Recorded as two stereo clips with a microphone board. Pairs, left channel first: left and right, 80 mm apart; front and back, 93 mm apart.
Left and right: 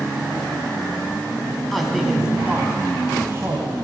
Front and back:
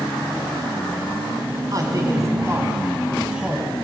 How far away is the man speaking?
About 1.7 m.